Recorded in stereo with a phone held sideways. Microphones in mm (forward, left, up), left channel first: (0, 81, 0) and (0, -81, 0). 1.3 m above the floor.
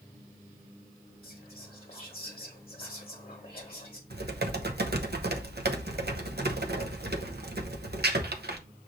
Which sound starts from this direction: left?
Whispering, at 1.2 s.